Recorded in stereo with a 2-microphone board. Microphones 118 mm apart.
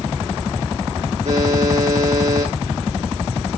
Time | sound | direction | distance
1.2 | a buzzer | 80° right | 4.5 m